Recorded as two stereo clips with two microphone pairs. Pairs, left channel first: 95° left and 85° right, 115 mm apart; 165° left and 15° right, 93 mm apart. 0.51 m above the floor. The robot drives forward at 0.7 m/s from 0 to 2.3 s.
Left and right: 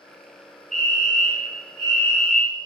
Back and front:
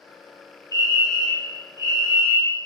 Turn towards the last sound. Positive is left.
turn(degrees=15)